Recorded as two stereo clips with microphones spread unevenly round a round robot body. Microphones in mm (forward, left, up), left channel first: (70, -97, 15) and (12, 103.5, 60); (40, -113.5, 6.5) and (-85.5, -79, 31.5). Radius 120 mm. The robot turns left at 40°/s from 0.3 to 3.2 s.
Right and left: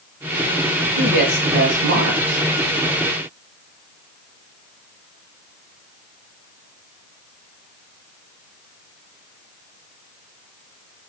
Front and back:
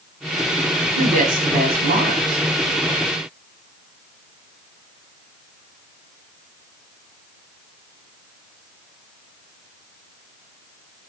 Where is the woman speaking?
175° left, 2.5 m; by 2.4 s 115° left, 2.5 m.